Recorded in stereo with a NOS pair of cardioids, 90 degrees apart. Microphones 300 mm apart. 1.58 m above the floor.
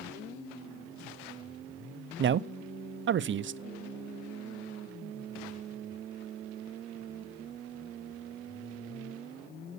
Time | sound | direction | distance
2.2 | a man speaking | 40° right | 0.6 m